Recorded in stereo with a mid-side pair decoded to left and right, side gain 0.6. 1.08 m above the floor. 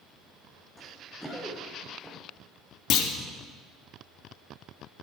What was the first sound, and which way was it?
Running footsteps, 5° right.